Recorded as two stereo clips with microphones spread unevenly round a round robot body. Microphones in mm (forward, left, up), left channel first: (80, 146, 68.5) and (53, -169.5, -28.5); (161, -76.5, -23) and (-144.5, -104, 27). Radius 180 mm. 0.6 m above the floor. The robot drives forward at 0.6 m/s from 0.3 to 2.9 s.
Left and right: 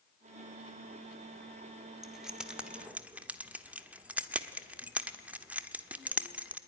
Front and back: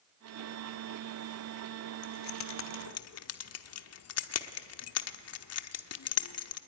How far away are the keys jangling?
About 1.5 m.